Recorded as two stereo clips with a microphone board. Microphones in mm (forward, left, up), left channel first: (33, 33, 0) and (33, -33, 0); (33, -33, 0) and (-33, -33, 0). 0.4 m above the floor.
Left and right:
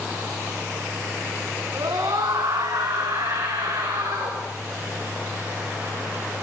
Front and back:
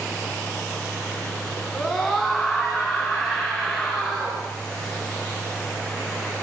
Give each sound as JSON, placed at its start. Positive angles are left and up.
{"t": 1.8, "sound": "a scream", "azimuth_deg": -85, "distance_m": 3.5}